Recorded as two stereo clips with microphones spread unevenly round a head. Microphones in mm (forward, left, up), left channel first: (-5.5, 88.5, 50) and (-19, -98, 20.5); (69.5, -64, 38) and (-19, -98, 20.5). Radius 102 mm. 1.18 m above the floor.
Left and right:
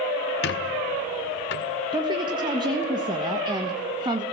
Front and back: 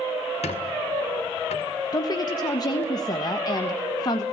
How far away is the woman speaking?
About 1.6 m.